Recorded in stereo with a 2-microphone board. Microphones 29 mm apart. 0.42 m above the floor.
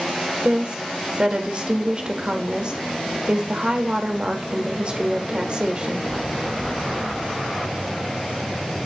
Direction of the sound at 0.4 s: 35° right (ahead or behind).